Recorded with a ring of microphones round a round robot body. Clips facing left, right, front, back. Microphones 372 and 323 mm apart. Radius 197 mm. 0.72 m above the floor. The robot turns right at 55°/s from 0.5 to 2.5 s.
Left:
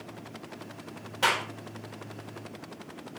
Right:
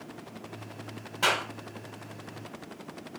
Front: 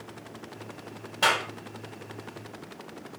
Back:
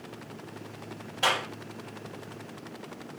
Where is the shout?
No shout in this recording.